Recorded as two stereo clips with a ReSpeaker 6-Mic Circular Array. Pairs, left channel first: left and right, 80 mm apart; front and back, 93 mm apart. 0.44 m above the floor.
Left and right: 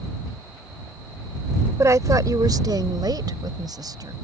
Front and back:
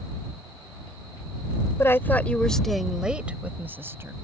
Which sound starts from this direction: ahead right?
A woman speaking, at 1.8 s.